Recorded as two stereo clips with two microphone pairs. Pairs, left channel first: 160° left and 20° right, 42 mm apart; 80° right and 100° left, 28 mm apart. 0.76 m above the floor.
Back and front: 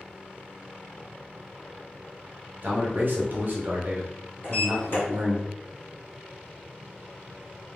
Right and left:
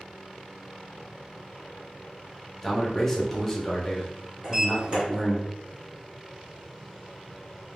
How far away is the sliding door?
About 1.8 m.